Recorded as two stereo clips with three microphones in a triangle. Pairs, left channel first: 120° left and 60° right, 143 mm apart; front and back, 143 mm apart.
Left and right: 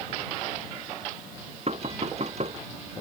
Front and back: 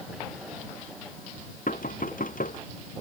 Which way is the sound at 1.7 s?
20° right.